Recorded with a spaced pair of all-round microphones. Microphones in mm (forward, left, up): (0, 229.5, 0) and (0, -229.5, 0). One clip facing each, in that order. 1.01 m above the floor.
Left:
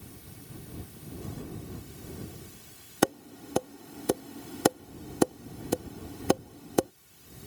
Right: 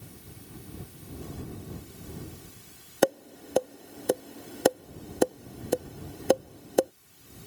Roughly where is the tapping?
Left.